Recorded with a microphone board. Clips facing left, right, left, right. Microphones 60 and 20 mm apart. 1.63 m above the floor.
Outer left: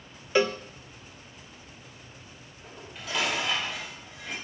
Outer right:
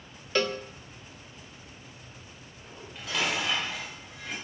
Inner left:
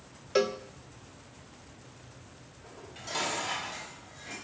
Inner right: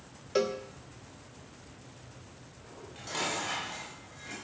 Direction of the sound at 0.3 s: 15° left (ahead or behind).